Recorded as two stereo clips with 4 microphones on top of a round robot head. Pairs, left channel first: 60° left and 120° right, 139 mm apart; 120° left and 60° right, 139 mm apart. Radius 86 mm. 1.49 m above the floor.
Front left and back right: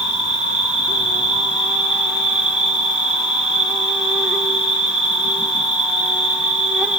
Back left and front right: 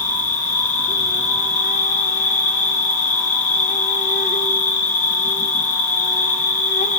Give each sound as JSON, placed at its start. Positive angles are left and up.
{"t": 0.0, "sound": "an insect", "azimuth_deg": 155, "distance_m": 0.8}